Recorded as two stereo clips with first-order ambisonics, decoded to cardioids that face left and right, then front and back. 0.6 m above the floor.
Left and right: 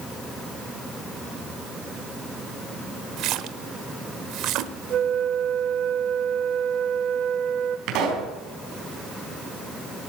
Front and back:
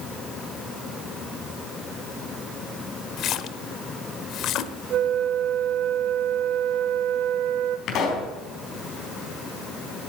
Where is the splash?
50° right, 0.9 m.